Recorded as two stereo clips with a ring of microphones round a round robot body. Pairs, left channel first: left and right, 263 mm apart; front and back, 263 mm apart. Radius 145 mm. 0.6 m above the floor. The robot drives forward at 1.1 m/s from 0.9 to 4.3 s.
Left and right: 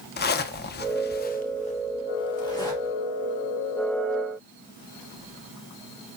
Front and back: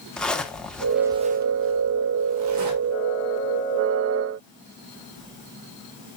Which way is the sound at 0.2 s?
85° left.